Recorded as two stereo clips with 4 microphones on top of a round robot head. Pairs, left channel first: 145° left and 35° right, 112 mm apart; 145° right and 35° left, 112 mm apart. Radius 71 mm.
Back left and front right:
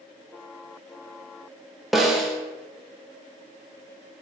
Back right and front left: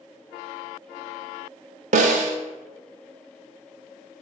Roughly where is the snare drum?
Ahead left.